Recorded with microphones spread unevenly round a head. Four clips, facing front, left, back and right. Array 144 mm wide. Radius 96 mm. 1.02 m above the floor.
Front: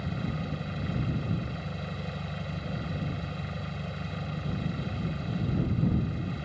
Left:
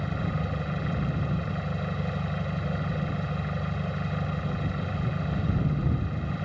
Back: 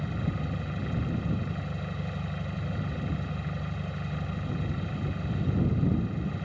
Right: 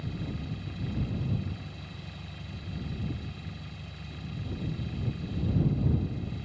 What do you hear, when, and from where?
0.0 s an engine running: 80° left